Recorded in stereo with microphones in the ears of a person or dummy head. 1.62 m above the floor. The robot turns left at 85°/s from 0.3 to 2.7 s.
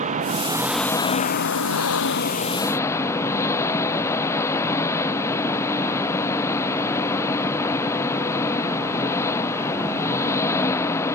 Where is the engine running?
140° right; by 11.1 s 15° left.